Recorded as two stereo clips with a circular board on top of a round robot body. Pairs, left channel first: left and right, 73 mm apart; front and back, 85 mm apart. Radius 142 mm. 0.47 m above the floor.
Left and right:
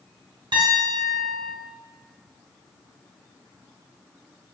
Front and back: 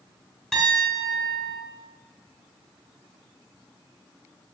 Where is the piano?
85° right, 2.5 m.